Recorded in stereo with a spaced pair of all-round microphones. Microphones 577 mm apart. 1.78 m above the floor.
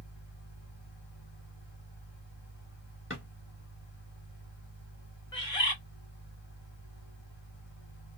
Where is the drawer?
20° left (ahead or behind), 1.3 m.